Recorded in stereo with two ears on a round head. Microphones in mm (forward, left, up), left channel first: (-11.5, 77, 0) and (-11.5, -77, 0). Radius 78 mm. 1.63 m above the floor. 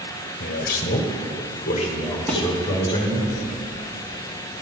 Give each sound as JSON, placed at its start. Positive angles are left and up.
{"t": 0.4, "sound": "a man speaking", "side_deg": 60, "distance_m": 1.2}
{"t": 2.3, "sound": "a thud", "side_deg": 5, "distance_m": 1.5}